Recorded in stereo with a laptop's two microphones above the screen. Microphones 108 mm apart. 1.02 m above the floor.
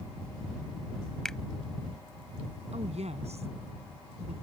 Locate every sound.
1.2 s a finger snap: 5° left (ahead or behind)
2.7 s a woman speaking: 90° right